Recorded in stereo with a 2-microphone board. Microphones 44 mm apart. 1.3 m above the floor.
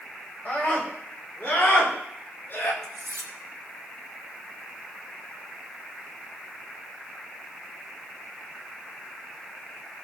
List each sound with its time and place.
0.5 s a scream: 35° left (ahead or behind), 6 m; by 2.7 s 45° left (ahead or behind), 4 m
2.8 s cutlery clinking: 80° right, 1.6 m